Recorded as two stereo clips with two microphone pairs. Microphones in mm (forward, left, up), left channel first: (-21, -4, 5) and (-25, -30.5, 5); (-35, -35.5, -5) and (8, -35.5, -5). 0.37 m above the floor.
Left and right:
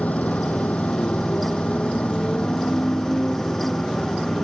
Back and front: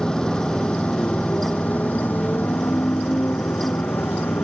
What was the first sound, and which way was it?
A motorcycle, 105° left.